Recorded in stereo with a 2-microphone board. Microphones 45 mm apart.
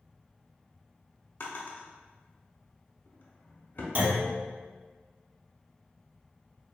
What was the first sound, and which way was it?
A drawer, 50° left (ahead or behind).